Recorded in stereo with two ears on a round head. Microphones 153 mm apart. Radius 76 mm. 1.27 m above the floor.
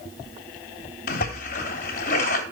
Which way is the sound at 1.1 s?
55° left (ahead or behind).